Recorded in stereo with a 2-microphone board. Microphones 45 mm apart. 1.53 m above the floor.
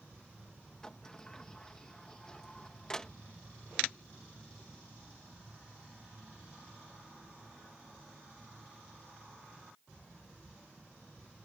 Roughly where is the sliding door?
Centre.